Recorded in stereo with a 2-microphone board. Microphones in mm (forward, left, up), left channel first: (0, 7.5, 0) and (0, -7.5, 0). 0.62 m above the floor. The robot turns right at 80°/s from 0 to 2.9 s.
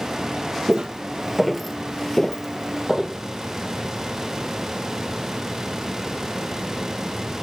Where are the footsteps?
50° right (ahead or behind), 1.0 m; by 3.2 s 30° right (ahead or behind), 1.2 m.